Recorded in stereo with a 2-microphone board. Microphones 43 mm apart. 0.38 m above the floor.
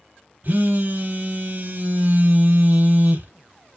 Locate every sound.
0.4 s a phone buzzing: 45° right (ahead or behind), 0.7 m